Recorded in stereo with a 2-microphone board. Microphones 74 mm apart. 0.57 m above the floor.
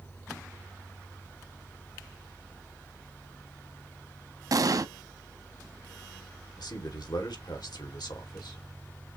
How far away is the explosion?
About 0.5 m.